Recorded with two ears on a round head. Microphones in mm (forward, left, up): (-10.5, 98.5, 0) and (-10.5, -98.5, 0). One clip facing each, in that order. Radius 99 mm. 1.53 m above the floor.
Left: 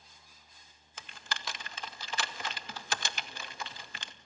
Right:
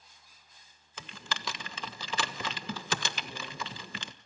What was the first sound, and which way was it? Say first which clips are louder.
Typing on a keyboard: right 3 dB; 70° right (ahead or behind).